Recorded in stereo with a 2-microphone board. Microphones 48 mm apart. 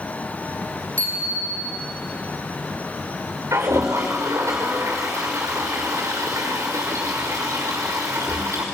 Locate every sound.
1.0 s a bicycle bell: 30° left (ahead or behind), 8 m
3.5 s a toilet flushing: 75° right (ahead or behind), 6 m